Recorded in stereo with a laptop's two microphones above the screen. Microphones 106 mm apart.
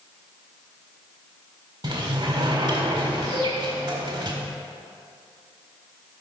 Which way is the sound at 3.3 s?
40° left (ahead or behind).